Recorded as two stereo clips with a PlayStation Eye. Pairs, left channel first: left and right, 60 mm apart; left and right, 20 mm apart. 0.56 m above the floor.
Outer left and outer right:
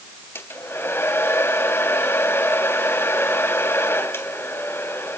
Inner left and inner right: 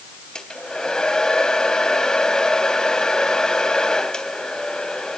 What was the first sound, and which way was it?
A hair dryer, 40° left (ahead or behind).